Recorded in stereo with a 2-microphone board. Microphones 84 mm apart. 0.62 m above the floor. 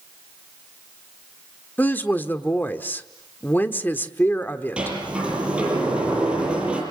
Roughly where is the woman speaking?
Left.